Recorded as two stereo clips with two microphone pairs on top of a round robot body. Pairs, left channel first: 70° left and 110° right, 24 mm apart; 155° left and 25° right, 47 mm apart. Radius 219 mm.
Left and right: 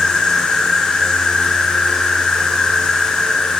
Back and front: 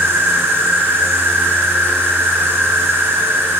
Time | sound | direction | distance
0.0 | an insect | 20° left | 1.1 m